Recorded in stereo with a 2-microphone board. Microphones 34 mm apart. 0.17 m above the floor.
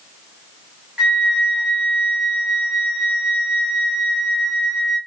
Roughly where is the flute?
Centre.